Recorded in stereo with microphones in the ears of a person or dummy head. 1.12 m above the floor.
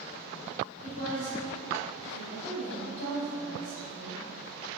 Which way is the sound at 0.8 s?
45° left (ahead or behind).